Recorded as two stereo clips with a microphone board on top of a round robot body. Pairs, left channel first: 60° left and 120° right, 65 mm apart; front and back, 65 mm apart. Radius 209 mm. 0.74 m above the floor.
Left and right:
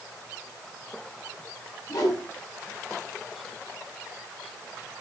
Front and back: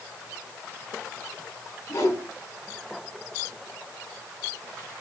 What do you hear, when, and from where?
1.9 s a whoosh: 40° left, 6.5 m